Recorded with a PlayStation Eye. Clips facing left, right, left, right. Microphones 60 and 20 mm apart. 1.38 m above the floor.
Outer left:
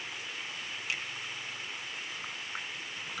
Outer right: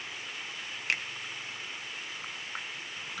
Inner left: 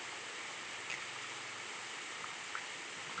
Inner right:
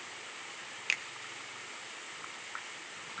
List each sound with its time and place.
0.9 s a finger snap: 60° right (ahead or behind), 1.1 m